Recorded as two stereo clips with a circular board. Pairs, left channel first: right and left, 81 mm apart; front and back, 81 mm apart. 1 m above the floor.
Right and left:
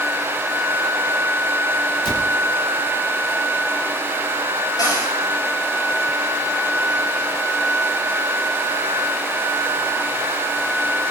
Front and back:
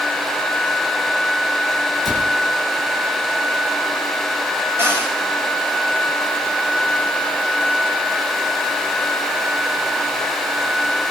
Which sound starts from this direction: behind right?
A cupboard door, at 4.8 s.